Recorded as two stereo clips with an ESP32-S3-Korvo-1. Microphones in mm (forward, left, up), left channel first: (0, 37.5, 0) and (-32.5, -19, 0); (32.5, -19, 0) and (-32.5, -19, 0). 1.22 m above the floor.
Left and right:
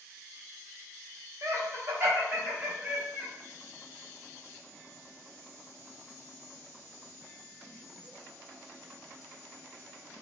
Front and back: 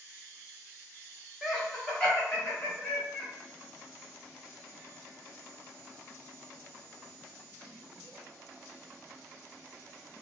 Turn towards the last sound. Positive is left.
turn(degrees=-50)